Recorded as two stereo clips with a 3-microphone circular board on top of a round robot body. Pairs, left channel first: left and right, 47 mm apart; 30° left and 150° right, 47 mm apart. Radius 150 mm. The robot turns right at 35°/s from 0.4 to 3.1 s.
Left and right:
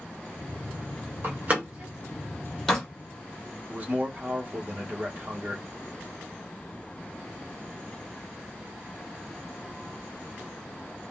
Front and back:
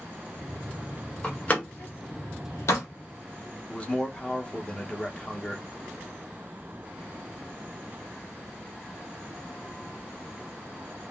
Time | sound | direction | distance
1.2 | a door slam | 45° right | 1.0 m
3.7 | a man speaking | 35° right | 1.0 m